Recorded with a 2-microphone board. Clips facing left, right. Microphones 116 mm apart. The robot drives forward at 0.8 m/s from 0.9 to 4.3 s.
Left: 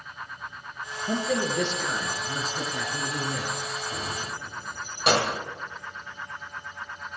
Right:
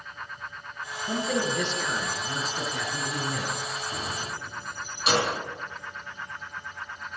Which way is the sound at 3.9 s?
65° left (ahead or behind).